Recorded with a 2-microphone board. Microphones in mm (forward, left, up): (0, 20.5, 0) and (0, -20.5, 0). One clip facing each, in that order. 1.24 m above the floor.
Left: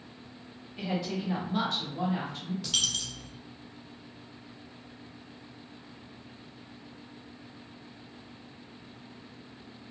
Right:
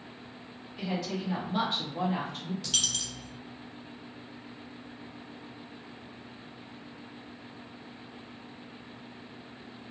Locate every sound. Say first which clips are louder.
0.8 s a woman speaking: left 1 dB; 25° left (ahead or behind), 1.1 m; by 2.5 s 60° right (ahead or behind), 0.9 m
2.6 s a dropped coin: left 2 dB; centre (ahead or behind), 0.6 m